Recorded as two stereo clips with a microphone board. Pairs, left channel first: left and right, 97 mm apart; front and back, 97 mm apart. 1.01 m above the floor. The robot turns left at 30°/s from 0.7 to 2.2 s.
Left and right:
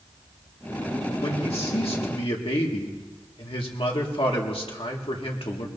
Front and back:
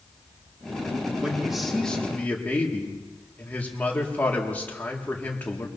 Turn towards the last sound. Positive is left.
turn(degrees=75)